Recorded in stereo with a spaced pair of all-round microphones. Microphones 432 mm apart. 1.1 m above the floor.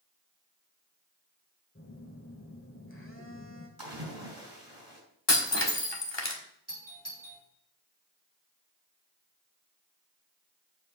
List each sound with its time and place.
1.8 s a phone buzzing: 30° left (ahead or behind), 1.7 m
3.8 s a splash: 55° right (ahead or behind), 5 m
5.3 s breaking glass: 75° left (ahead or behind), 1.5 m
6.7 s a doorbell: 45° right (ahead or behind), 4 m